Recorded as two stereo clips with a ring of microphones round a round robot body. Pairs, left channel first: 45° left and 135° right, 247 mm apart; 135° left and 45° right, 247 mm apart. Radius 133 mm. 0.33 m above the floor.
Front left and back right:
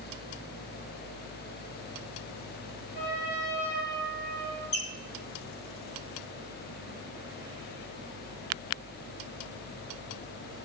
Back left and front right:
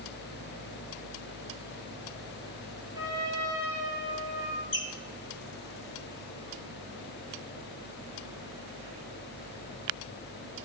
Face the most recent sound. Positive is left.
turn(degrees=95)